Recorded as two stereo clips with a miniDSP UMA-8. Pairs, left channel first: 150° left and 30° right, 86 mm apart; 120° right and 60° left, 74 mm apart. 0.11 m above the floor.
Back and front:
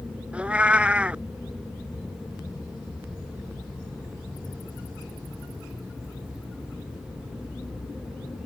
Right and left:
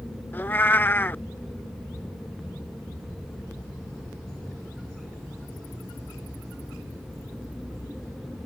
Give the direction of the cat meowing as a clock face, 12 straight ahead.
3 o'clock.